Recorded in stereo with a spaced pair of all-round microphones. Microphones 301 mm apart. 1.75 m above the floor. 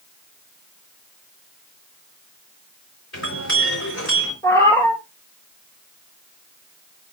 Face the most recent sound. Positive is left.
turn(degrees=10)  # may be behind; listen again after turning